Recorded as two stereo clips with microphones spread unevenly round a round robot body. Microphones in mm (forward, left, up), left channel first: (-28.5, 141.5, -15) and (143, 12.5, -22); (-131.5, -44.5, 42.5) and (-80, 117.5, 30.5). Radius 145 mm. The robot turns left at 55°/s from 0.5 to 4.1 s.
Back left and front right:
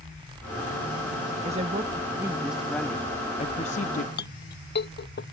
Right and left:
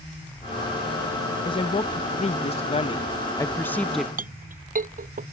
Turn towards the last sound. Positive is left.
turn(degrees=105)